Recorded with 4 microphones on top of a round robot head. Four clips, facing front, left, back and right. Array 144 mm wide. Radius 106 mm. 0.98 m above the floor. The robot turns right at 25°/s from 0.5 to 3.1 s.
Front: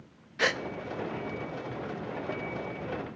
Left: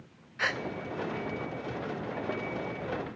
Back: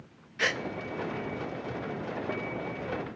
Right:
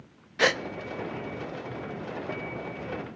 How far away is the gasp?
About 0.5 m.